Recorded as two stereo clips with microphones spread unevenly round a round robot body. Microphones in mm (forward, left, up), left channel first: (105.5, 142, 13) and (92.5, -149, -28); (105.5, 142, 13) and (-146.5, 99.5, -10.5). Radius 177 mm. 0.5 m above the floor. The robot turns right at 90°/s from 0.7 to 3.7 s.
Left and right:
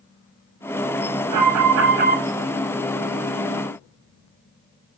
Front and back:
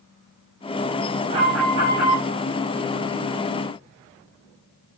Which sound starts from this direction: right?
An alarm, at 1.3 s.